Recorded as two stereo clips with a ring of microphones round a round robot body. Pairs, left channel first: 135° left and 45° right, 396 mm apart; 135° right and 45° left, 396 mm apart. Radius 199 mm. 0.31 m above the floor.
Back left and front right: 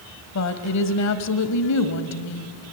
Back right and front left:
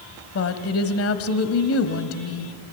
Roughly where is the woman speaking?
Behind.